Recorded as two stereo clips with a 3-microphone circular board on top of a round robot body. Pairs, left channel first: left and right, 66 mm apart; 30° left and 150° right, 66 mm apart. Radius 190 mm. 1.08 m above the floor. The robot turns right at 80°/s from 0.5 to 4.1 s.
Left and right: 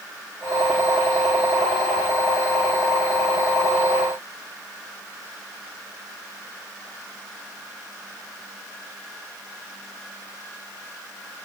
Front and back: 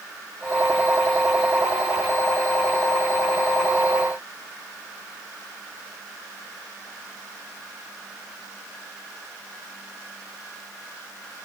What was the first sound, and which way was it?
Only background noise.